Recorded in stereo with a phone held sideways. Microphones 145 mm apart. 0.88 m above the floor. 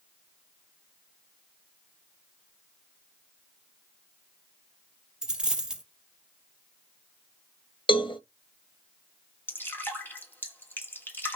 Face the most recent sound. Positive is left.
turn(degrees=15)  # may be behind; listen again after turning